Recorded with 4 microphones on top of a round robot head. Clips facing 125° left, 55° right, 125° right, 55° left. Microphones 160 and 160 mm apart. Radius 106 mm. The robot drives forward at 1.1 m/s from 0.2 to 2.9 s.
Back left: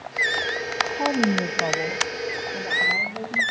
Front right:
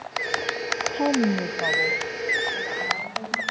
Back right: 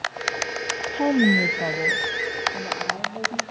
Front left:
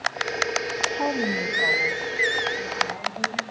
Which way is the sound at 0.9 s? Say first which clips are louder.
Front right 1 dB, back right 8 dB; 55° right.